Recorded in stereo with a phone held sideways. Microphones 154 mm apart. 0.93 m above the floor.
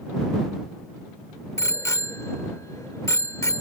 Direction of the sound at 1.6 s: 20° left (ahead or behind).